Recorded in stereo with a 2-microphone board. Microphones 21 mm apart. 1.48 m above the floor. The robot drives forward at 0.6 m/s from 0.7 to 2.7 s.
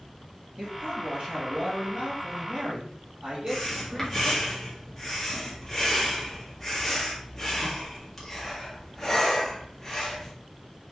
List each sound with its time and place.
0.6 s a man speaking: 40° right (ahead or behind), 2 m; by 4.5 s 70° right (ahead or behind), 1.6 m
3.5 s breathing: 5° left (ahead or behind), 1.5 m